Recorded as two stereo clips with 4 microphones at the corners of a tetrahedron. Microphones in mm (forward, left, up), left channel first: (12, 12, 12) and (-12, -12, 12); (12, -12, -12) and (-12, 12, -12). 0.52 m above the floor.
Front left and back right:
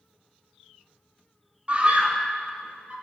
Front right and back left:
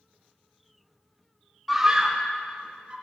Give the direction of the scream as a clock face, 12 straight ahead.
5 o'clock.